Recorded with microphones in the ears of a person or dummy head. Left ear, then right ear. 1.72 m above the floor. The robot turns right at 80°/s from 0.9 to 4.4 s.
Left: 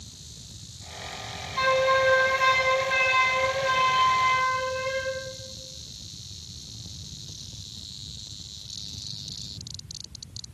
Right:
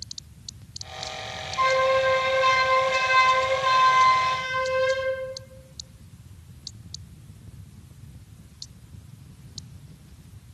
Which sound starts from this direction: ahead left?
A flute, at 1.6 s.